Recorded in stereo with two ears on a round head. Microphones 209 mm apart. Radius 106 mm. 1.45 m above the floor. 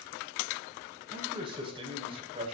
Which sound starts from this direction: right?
A man speaking, at 1.1 s.